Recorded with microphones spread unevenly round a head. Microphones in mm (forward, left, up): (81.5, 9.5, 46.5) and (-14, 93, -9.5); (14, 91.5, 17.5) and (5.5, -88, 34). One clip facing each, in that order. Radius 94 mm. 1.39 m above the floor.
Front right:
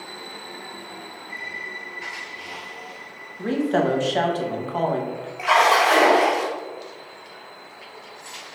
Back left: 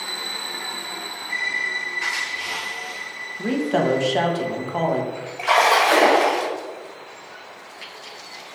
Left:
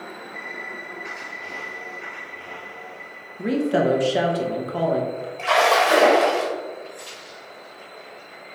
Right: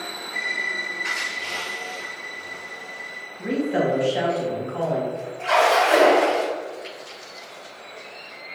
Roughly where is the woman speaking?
Ahead left.